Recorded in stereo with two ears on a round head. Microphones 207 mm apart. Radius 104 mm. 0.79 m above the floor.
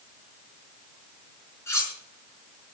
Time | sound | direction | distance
1.7 | cutlery clinking | 10° left (ahead or behind) | 5 m